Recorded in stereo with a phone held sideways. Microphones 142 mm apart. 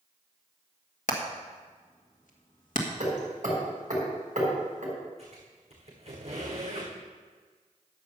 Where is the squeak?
55° right (ahead or behind), 5 m.